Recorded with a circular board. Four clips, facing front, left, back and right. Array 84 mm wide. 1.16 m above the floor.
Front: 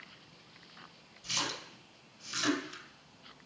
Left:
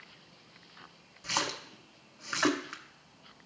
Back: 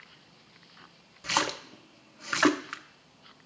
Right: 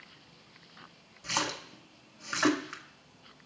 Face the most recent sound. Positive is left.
turn(degrees=180)